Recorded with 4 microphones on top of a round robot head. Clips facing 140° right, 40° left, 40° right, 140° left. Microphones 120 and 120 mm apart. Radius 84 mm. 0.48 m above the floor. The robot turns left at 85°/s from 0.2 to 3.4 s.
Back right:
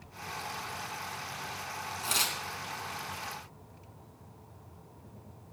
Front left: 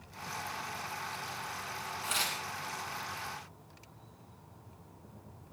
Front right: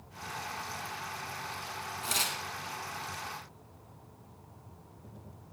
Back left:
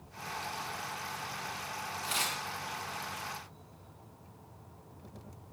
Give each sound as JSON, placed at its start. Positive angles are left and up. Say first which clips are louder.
{"t": 2.0, "sound": "tearing paper", "louder": "back right 2 dB, front right 1 dB", "azimuth_deg": -80, "distance_m": 3.0}